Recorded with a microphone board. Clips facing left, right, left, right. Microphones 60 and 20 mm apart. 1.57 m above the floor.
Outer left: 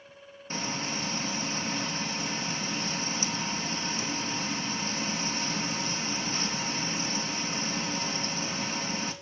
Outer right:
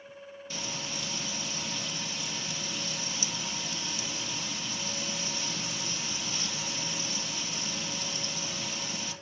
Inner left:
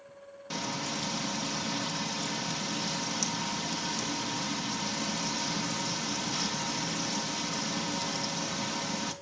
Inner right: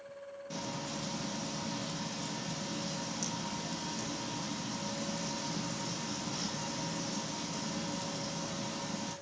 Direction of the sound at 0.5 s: 40° left (ahead or behind).